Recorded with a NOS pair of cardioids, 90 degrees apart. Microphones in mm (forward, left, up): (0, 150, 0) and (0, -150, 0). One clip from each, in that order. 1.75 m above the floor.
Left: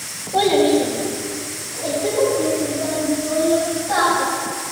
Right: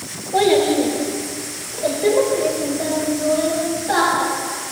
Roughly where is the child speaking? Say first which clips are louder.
Even; ahead right.